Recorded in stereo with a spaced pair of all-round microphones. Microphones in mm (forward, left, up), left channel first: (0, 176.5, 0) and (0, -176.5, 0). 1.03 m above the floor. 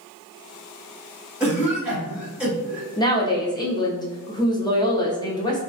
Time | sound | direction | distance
1.4 | a cough | 5° right (ahead or behind) | 1.9 m
3.0 | a woman speaking | 10° left (ahead or behind) | 0.6 m